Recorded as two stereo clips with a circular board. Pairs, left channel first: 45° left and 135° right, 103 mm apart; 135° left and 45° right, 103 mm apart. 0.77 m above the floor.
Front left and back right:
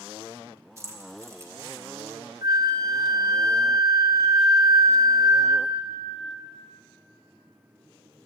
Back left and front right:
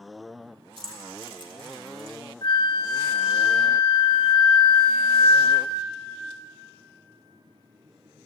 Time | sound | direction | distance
0.8 | keys jangling | 75° right | 1.6 m
2.4 | a flute | 170° left | 0.9 m